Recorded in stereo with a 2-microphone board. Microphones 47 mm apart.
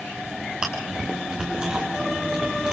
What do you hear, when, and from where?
0.6 s chewing: 20° right (ahead or behind), 4.5 m